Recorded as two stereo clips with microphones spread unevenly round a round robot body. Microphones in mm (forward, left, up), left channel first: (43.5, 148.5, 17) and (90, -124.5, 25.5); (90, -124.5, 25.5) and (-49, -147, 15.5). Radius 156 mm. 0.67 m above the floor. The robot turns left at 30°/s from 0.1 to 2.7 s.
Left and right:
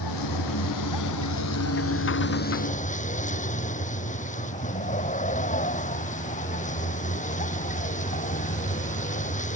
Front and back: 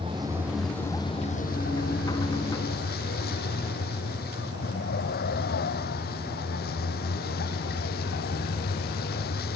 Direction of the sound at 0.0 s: 115° left.